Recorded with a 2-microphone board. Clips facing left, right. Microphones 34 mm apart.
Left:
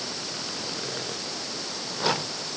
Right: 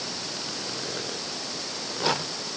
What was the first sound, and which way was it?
Only background noise.